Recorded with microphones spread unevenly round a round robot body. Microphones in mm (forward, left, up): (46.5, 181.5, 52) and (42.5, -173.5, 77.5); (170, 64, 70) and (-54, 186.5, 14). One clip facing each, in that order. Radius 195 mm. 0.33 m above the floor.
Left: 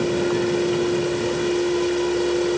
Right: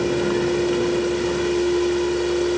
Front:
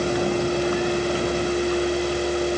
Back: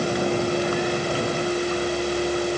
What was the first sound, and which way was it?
Only background noise.